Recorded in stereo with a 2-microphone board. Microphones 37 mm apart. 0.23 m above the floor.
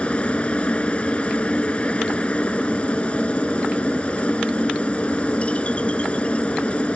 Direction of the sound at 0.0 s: 35° left (ahead or behind).